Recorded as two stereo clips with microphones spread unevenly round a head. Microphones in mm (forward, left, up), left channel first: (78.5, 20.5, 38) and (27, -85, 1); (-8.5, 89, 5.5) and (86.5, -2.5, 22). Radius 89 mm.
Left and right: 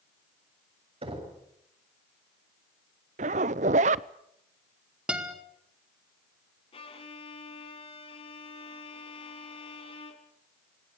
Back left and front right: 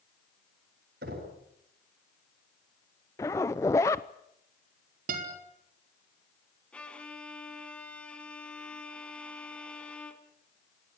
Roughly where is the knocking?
Right.